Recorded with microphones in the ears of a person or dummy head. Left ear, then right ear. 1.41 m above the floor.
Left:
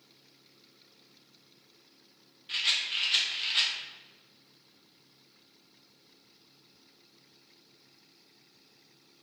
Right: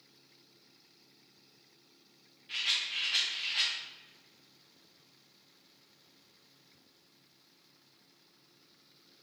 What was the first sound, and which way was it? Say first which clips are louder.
A rattle: left 3 dB; 20° left (ahead or behind).